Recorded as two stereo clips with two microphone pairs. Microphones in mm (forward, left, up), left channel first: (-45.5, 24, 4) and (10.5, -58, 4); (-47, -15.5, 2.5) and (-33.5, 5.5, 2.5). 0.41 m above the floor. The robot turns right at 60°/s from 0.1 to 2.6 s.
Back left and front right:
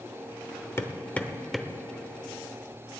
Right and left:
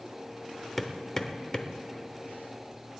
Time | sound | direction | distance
0.8 | hammering | 170° left | 1.0 m